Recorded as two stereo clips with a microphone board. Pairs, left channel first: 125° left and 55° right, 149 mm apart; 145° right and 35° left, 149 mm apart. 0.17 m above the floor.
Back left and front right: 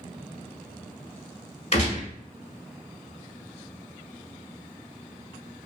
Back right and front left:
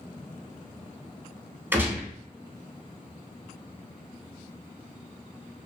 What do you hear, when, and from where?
1.7 s a gunshot: 105° left, 0.9 m